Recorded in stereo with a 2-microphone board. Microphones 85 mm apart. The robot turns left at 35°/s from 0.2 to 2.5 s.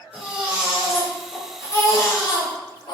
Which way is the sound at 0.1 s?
160° right.